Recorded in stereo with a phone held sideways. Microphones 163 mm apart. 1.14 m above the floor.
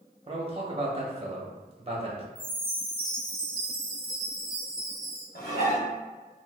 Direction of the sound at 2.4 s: 55° left (ahead or behind).